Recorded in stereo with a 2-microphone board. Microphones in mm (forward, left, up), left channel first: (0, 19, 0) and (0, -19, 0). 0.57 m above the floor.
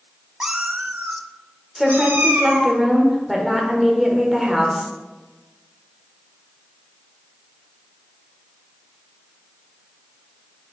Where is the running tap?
No running tap in this recording.